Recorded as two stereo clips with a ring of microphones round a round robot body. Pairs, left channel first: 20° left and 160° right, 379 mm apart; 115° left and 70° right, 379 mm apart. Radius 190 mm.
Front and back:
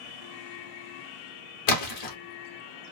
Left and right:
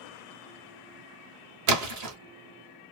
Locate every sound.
1.7 s a splash: 20° right, 0.8 m